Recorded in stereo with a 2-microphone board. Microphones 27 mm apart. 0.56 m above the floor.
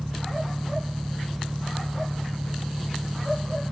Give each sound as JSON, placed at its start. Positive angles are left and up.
{"t": 0.0, "sound": "an engine running", "side_deg": -90}